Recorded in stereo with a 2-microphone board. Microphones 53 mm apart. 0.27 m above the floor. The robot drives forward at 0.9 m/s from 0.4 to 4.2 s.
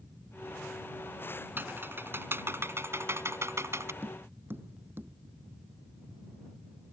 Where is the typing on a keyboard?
45° right (ahead or behind); by 3.9 s 60° right (ahead or behind).